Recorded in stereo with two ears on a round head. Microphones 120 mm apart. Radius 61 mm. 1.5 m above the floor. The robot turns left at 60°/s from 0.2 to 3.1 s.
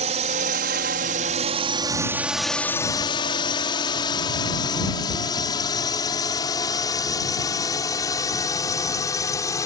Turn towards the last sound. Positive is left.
turn(degrees=25)  # may be behind; listen again after turning